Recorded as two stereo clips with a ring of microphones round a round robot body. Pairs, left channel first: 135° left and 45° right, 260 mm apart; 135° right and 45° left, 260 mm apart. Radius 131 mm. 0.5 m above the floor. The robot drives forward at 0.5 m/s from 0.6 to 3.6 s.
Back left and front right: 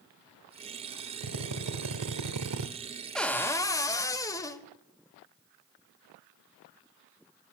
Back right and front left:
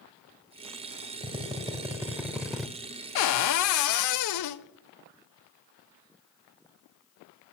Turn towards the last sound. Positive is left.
turn(degrees=-145)